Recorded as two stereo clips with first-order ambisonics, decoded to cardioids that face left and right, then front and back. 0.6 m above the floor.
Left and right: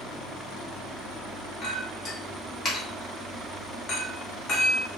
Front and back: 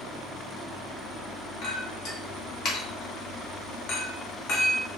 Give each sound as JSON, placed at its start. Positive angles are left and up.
{"t": 1.6, "sound": "a clink", "azimuth_deg": 35, "distance_m": 0.8}